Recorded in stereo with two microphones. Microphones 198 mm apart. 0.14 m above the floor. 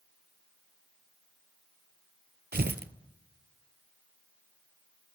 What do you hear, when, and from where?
2.5 s tearing paper: 55° right (ahead or behind), 0.6 m